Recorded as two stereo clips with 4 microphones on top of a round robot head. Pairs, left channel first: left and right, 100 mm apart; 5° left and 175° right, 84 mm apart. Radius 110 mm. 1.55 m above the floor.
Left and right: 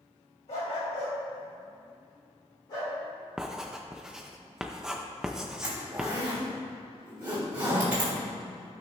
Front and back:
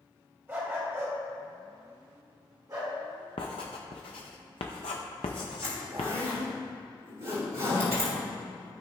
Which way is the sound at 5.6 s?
160° right.